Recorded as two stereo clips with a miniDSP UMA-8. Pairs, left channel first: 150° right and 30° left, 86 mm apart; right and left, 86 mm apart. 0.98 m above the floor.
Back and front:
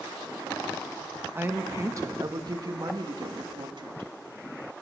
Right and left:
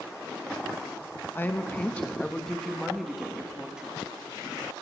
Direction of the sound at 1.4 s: 30° right.